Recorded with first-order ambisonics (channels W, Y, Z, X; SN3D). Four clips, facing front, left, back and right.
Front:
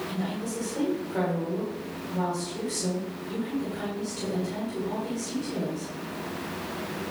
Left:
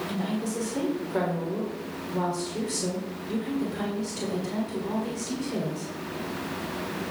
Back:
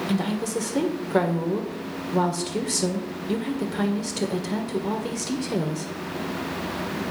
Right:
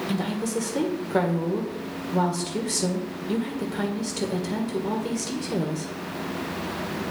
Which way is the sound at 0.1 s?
155° right.